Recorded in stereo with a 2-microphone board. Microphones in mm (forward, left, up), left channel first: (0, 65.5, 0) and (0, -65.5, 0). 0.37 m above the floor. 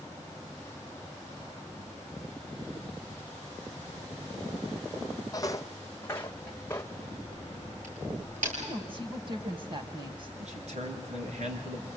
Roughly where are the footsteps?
Left.